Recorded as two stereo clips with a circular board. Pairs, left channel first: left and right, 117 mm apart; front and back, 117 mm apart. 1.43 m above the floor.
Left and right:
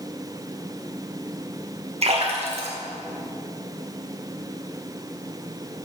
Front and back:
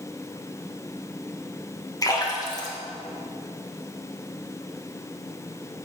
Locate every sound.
2.0 s a splash: 60° right, 2.0 m